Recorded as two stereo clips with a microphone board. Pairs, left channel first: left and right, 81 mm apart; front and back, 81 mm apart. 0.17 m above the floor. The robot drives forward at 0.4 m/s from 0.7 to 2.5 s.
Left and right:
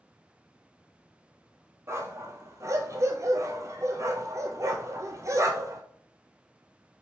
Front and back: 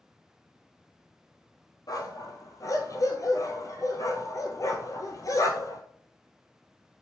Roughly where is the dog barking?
Ahead right.